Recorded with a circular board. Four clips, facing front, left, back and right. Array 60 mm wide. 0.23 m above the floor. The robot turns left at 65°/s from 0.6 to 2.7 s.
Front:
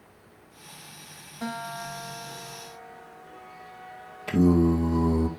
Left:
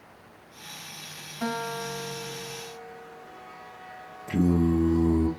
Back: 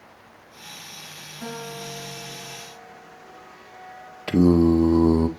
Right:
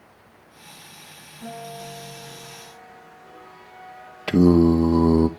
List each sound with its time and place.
1.4 s a guitar: 80° left, 1.6 m; by 3.2 s 5° right, 1.6 m
4.3 s singing: 120° right, 1.1 m